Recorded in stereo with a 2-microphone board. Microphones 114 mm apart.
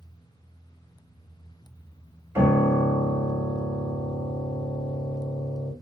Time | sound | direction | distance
2.4 | a piano | 25° right (ahead or behind) | 1.6 m